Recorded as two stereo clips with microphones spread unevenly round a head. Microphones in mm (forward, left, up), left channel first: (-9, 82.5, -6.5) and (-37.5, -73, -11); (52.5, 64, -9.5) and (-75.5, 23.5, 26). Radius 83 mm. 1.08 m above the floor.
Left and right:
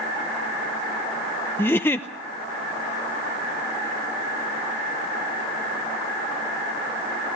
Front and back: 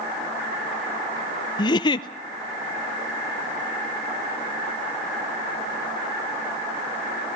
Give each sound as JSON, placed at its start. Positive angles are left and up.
{"t": 1.6, "sound": "a giggle", "azimuth_deg": 5, "distance_m": 0.7}